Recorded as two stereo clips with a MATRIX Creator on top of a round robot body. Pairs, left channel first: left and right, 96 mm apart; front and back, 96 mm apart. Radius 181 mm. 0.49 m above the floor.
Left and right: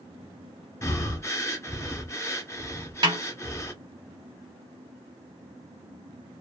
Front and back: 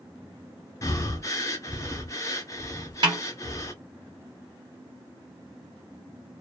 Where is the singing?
No singing in this recording.